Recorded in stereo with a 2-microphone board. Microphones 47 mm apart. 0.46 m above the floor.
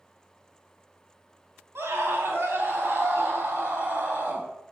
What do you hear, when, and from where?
1.8 s a scream: 60° right (ahead or behind), 3.5 m; by 4.5 s 50° right (ahead or behind), 4.5 m